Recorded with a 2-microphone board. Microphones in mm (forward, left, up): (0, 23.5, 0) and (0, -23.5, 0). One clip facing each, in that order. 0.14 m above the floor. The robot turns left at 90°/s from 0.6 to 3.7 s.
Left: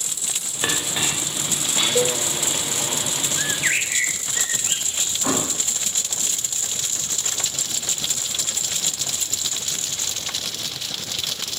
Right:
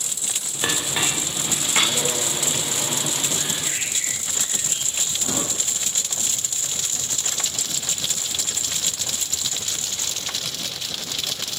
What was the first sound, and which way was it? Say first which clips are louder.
A clink: even; 10° left (ahead or behind).